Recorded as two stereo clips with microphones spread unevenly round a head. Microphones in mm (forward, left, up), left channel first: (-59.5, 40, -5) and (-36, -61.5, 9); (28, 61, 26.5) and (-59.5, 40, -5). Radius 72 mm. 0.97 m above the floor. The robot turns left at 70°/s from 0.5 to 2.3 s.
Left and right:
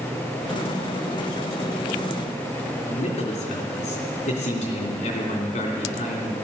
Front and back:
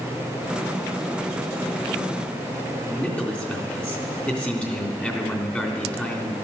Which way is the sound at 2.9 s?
90° left.